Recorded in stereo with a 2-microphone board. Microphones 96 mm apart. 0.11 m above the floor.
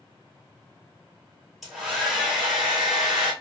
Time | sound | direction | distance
1.6 | a hair dryer | centre (ahead or behind) | 1.3 m